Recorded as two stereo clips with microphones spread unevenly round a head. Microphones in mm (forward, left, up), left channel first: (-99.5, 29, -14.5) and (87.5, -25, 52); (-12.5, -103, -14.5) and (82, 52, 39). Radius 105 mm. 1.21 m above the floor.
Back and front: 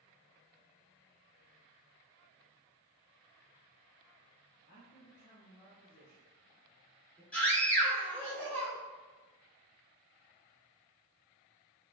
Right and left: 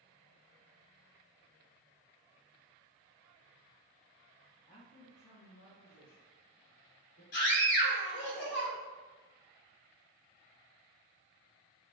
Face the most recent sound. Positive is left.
turn(degrees=-120)